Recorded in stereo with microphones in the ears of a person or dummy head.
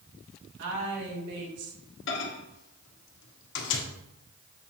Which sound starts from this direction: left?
A microwave, at 2.1 s.